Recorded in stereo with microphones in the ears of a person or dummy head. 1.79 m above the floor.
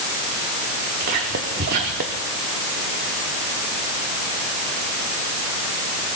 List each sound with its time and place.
1.0 s whispering: 50° right (ahead or behind), 1.0 m